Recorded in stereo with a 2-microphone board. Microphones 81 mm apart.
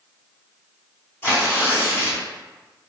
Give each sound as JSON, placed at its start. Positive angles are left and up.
{"t": 1.2, "sound": "tearing paper", "side_deg": 30, "distance_m": 1.8}